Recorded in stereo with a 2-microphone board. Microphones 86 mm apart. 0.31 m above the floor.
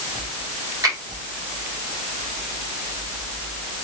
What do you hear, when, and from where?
0.8 s a finger snap: 40° right (ahead or behind), 2.5 m